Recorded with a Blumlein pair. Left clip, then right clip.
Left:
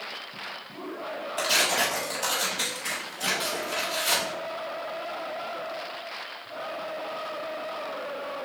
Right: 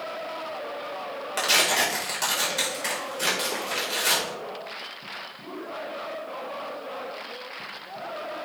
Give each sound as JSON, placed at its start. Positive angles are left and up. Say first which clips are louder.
{"t": 1.4, "sound": "tearing paper", "louder": "right 2 dB", "azimuth_deg": -50, "distance_m": 4.5}